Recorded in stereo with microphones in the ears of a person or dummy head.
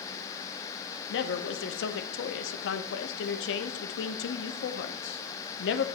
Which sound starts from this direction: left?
A man speaking, at 1.1 s.